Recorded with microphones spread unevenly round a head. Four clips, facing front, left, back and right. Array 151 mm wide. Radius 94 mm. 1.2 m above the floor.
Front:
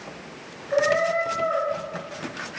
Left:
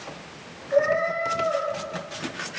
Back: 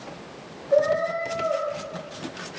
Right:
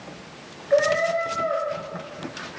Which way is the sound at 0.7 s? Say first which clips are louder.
Right 2 dB, even; 140° right.